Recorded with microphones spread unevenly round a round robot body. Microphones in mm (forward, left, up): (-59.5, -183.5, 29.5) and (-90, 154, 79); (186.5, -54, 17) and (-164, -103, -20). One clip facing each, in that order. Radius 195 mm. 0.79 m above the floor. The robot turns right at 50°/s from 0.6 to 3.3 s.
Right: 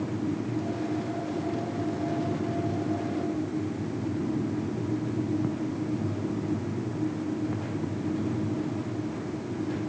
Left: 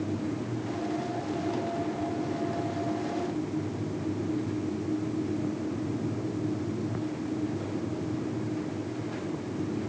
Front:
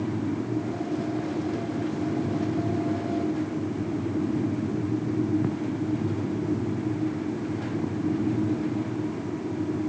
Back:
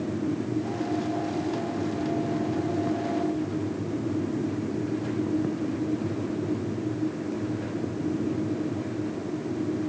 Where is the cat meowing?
I don't hear a cat meowing.